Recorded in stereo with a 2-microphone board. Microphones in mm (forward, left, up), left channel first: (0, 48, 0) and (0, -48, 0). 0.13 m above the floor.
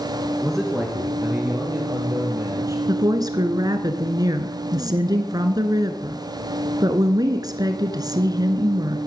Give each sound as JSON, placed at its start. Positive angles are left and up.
{"t": 0.4, "sound": "a man speaking", "side_deg": 5, "distance_m": 1.8}
{"t": 2.9, "sound": "a woman speaking", "side_deg": -45, "distance_m": 1.4}